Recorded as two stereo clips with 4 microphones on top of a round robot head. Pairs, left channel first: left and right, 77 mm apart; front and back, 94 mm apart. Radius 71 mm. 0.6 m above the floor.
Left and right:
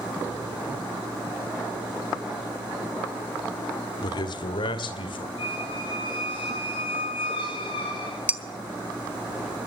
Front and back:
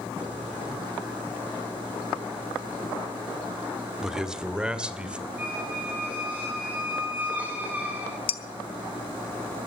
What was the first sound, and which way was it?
A man speaking, 95° left.